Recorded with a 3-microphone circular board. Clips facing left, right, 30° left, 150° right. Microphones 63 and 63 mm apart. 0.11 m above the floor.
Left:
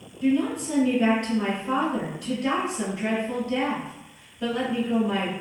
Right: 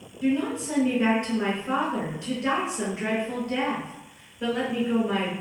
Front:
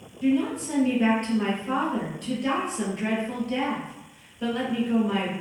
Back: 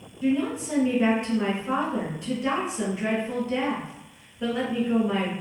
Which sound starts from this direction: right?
A woman speaking, at 0.2 s.